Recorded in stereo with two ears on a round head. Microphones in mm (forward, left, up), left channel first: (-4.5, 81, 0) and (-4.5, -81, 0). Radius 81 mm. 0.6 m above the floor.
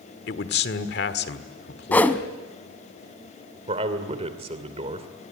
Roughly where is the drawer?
I don't hear a drawer.